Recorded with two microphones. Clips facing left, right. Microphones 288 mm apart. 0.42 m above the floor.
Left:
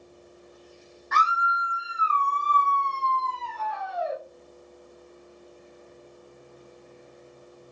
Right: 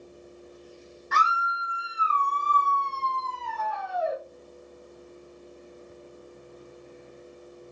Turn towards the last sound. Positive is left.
turn(degrees=-55)  # may be behind; listen again after turning